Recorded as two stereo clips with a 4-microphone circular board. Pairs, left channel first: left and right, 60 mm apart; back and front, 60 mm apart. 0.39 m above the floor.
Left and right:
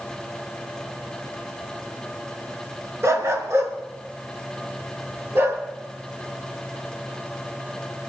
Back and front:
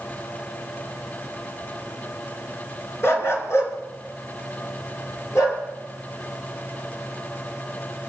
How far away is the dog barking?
About 2 m.